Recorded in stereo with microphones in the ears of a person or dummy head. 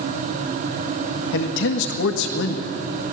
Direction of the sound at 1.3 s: 65° left (ahead or behind).